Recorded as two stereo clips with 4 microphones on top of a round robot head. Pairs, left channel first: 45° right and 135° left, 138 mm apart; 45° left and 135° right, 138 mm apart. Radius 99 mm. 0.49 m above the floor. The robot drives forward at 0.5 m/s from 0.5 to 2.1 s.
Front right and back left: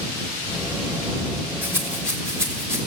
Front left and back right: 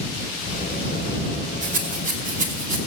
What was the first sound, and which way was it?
A rattle, 155° right.